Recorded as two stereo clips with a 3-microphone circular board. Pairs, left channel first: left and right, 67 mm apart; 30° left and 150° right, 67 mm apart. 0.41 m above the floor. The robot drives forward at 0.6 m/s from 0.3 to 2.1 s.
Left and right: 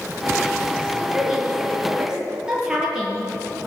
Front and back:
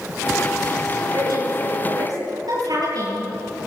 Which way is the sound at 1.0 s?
170° right.